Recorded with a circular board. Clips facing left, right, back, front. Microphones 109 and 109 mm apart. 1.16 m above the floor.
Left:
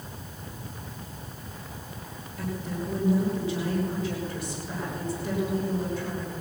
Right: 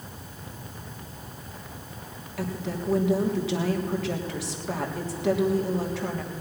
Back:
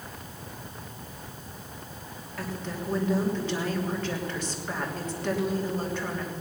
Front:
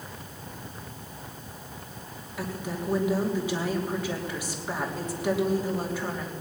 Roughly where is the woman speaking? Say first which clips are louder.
Right 2 dB, front 2 dB; right.